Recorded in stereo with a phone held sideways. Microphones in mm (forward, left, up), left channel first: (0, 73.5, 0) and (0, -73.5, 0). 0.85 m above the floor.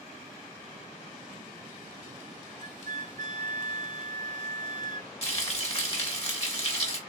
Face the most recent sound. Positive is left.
turn(degrees=45)  # may be behind; listen again after turning